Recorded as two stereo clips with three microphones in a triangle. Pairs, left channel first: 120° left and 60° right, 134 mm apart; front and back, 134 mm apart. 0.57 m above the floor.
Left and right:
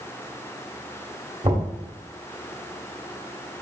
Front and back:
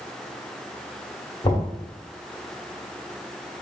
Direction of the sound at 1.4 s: 35° right.